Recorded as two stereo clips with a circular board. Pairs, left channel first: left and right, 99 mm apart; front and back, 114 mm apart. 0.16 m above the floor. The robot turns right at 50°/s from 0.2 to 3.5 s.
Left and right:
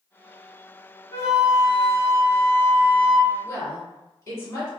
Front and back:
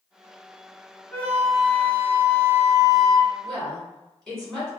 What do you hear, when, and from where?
1.1 s a flute: 60° left, 0.6 m; by 3.3 s 170° left, 0.6 m
3.4 s a woman speaking: 80° left, 1.7 m